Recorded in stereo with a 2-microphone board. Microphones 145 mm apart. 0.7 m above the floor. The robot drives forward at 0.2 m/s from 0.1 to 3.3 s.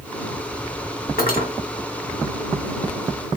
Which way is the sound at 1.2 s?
85° left.